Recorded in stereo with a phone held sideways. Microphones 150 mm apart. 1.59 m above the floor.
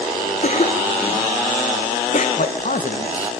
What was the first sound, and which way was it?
A cough, 55° left (ahead or behind).